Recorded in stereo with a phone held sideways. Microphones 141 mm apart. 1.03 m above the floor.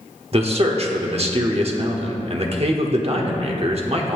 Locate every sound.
0.3 s a man speaking: 45° right (ahead or behind), 1.1 m